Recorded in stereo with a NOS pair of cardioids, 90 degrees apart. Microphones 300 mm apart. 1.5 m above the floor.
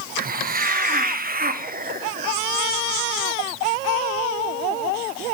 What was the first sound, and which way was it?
A hiss, 30° right.